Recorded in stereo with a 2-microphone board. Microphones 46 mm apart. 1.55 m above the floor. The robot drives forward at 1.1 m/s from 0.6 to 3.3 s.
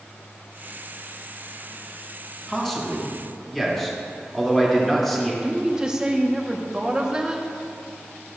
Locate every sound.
2.5 s a man speaking: 10° left (ahead or behind), 2 m; by 5.3 s 5° left (ahead or behind), 3 m
5.4 s a woman speaking: 15° right (ahead or behind), 1.4 m